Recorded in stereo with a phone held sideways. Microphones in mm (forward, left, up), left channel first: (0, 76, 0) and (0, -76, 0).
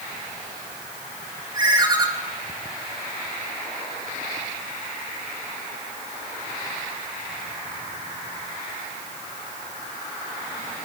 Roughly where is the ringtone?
Right.